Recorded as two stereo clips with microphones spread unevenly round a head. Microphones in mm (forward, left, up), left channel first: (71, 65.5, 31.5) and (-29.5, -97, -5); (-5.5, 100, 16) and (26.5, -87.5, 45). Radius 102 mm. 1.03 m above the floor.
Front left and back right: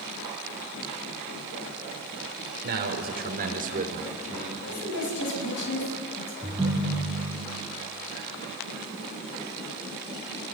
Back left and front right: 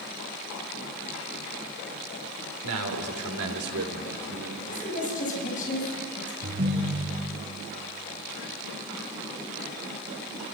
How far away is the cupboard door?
No cupboard door in this recording.